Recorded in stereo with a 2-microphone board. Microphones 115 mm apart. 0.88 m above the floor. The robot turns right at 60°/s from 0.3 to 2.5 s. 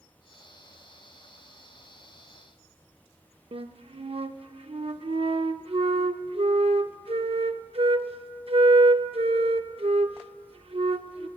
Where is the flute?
55° right (ahead or behind), 0.6 m.